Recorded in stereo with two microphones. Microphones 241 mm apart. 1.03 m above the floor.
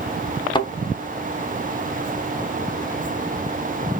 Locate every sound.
0.6 s a thud: 20° left (ahead or behind), 0.5 m